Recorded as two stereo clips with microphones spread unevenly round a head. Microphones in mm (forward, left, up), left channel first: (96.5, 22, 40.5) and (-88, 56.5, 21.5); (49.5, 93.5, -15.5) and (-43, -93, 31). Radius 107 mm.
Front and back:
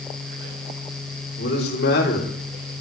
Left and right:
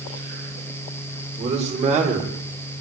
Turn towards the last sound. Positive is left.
turn(degrees=-60)